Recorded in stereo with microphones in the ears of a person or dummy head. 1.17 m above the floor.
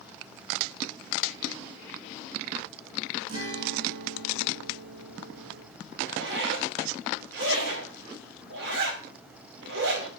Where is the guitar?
75° right (ahead or behind), 1.9 m.